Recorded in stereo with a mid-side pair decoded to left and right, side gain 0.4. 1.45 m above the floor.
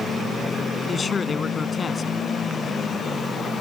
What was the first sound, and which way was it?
A man speaking, 40° left.